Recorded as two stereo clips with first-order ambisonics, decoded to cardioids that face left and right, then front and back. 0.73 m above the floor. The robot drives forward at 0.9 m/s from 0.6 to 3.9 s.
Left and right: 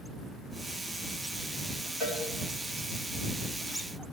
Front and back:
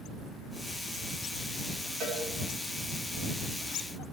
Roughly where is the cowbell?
Behind left.